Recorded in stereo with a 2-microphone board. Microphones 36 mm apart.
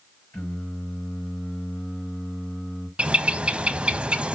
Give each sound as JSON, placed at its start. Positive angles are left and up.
{"t": 0.3, "sound": "singing", "side_deg": 75, "distance_m": 6.0}
{"t": 3.0, "sound": "a bird", "side_deg": -30, "distance_m": 0.8}